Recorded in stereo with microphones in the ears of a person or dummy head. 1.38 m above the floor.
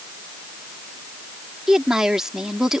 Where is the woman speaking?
10° right (ahead or behind).